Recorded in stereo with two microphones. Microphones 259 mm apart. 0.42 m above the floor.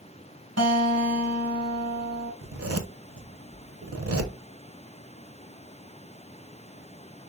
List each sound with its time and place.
0.6 s a guitar: 80° right, 1.3 m
2.4 s a zipper: 65° right (ahead or behind), 0.7 m